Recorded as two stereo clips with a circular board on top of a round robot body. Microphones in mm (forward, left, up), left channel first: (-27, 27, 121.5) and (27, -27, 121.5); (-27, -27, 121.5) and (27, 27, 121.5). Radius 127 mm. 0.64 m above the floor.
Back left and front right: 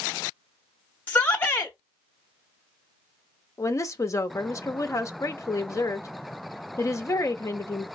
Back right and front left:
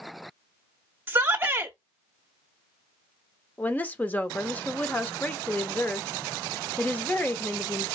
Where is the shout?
85° left, 0.9 m.